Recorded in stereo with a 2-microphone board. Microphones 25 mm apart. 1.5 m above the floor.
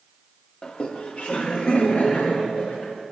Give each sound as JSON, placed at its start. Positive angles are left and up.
{"t": 0.6, "sound": "laughter", "side_deg": 30, "distance_m": 0.7}